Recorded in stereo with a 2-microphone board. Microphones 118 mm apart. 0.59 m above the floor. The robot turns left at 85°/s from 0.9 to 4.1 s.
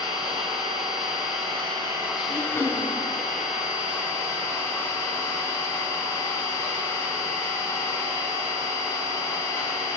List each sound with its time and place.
0.0 s an engine running: 65° right, 2.5 m; by 10.0 s 25° left, 2.5 m
2.3 s throat clearing: 45° left, 1.7 m; by 2.9 s 10° right, 1.7 m